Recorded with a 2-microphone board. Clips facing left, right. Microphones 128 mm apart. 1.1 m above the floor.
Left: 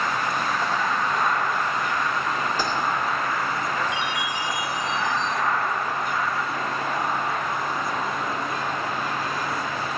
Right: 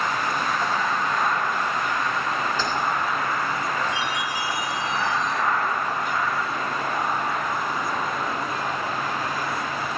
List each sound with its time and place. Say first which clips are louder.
2.6 s keys jangling: left 1 dB; 10° left (ahead or behind), 2 m
3.9 s a chime: even; 40° right (ahead or behind), 3 m